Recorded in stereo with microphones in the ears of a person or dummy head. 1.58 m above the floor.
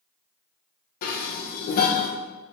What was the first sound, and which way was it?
Dishes clattering, 45° left (ahead or behind).